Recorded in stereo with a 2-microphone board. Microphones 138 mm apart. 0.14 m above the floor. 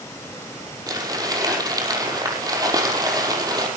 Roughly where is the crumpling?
Right.